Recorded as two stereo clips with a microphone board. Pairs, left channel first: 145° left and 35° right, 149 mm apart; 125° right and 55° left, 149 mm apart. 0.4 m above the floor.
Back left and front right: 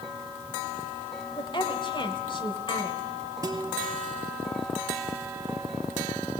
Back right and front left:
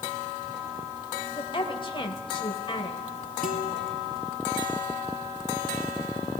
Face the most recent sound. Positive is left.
turn(degrees=-105)